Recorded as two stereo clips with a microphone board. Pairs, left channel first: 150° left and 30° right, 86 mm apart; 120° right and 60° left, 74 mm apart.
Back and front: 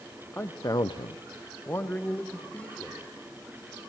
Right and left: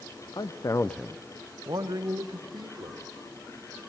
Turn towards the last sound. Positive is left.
turn(degrees=75)